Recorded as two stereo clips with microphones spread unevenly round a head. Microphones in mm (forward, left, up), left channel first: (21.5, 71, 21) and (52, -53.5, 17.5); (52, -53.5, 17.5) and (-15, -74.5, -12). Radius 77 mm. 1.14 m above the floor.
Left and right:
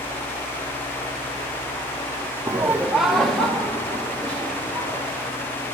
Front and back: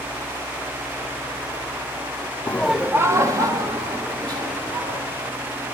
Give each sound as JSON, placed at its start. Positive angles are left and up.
{"t": 2.5, "sound": "laughter", "azimuth_deg": -55, "distance_m": 0.6}